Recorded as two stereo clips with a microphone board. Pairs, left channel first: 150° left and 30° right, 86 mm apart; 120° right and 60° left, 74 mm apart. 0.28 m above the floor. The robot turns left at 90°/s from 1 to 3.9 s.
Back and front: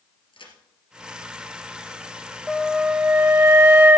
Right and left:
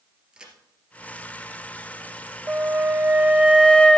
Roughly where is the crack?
Behind left.